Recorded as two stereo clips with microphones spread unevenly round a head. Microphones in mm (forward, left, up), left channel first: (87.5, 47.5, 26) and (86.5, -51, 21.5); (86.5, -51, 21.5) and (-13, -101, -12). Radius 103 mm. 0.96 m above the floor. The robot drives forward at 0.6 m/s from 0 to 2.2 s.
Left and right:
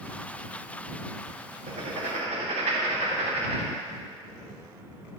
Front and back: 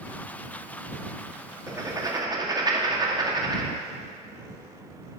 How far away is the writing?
About 1.7 m.